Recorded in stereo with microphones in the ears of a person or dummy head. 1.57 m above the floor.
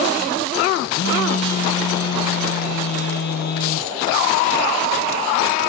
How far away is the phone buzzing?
About 1.1 m.